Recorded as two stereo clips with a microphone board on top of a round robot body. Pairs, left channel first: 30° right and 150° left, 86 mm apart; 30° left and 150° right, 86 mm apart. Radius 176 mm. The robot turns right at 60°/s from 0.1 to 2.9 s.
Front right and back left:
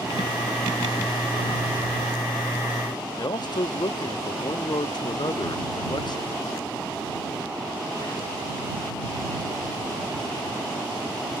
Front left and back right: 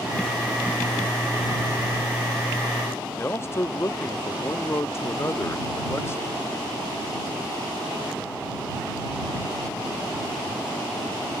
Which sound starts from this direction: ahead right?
A man speaking, at 3.2 s.